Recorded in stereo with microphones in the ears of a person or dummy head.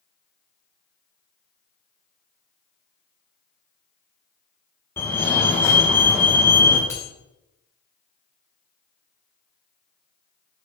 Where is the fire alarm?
15° left (ahead or behind), 2.5 m.